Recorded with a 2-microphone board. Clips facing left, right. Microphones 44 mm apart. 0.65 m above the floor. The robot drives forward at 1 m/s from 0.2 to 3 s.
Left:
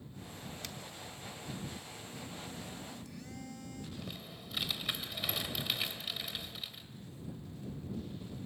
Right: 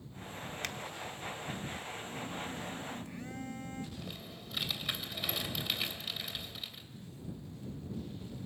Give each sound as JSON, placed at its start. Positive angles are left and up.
{"t": 0.6, "sound": "a finger snap", "side_deg": -50, "distance_m": 1.0}
{"t": 2.0, "sound": "a phone buzzing", "side_deg": -25, "distance_m": 1.9}
{"t": 4.0, "sound": "typing on a keyboard", "side_deg": 0, "distance_m": 2.5}